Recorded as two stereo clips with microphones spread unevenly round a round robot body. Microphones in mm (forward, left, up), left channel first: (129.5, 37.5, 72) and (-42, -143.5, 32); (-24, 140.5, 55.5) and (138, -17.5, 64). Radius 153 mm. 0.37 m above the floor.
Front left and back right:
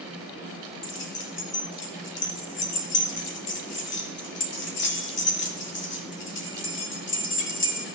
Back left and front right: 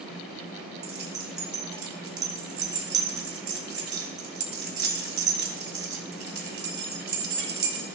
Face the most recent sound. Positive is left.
turn(degrees=0)